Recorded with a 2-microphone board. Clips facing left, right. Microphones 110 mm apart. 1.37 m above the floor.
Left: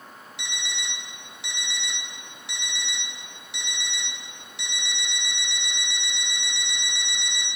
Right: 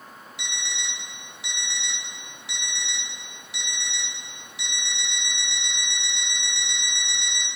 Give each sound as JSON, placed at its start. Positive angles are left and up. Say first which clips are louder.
{"t": 0.4, "sound": "an alarm clock", "louder": "even", "side_deg": 0, "distance_m": 1.6}